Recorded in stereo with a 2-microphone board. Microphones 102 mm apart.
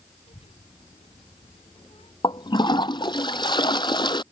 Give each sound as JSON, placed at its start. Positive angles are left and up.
{"t": 0.3, "sound": "a child speaking", "side_deg": 70}
{"t": 2.2, "sound": "a toilet flushing", "side_deg": 50}